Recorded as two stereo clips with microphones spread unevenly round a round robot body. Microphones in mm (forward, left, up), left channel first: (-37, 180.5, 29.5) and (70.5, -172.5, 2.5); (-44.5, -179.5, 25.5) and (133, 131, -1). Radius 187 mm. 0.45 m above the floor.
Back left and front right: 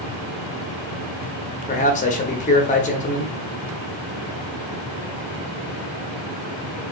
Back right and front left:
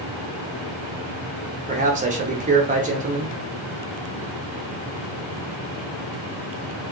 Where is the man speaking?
55° left, 0.7 m.